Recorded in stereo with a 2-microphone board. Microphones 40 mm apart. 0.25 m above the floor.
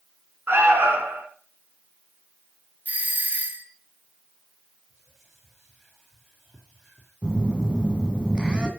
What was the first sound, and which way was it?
An alarm, 65° right (ahead or behind).